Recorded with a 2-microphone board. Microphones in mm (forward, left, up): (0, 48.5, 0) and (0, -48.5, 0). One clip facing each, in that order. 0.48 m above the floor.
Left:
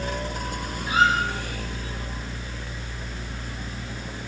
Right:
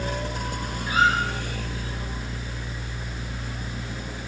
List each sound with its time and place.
0.9 s a squeak: 25° left (ahead or behind), 7 m